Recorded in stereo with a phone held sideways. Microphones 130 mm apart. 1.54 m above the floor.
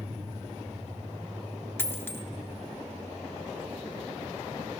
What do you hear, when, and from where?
1.8 s a dropped coin: 15° left (ahead or behind), 1.2 m